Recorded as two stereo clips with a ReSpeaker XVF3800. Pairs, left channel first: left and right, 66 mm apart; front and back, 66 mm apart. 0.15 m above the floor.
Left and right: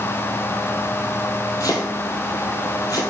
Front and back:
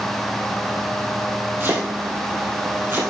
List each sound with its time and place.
1.6 s chopping: 120° left, 2 m